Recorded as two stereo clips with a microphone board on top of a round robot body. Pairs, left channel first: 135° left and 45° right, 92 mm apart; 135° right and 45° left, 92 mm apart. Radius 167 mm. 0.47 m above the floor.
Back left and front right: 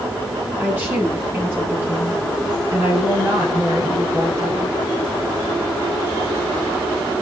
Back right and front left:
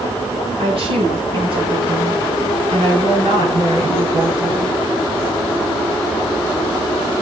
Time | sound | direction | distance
0.6 | a woman speaking | 25° left | 9.5 m